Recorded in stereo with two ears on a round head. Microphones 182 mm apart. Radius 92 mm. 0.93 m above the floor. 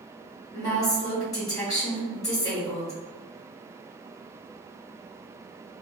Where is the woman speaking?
15° left (ahead or behind), 1.5 m.